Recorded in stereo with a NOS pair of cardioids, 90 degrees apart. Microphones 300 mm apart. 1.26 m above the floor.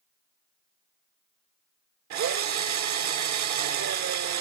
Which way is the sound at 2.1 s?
70° right.